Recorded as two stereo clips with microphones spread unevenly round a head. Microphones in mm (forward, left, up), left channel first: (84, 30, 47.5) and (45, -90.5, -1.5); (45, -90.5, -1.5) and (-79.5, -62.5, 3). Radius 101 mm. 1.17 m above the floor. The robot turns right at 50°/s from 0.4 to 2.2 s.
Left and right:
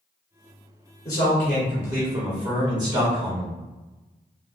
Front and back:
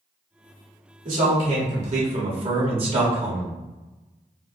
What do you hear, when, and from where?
1.1 s a man speaking: 145° left, 1.5 m; by 3.6 s 155° right, 1.5 m